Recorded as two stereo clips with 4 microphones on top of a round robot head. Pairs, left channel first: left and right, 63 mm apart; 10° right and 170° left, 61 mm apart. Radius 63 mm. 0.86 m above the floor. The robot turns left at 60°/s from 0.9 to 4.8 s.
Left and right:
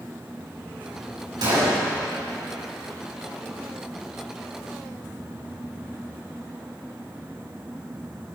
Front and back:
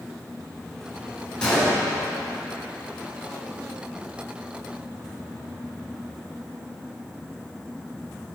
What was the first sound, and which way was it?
A gunshot, 85° right.